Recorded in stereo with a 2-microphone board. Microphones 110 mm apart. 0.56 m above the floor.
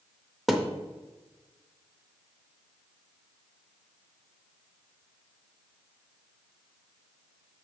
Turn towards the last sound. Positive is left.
turn(degrees=0)  # may be behind; listen again after turning